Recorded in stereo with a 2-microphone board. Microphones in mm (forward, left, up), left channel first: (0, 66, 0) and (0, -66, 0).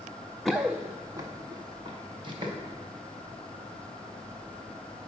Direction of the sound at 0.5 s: 5° left (ahead or behind).